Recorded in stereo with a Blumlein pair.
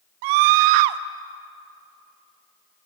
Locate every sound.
0.2 s a scream: 45° right, 0.9 m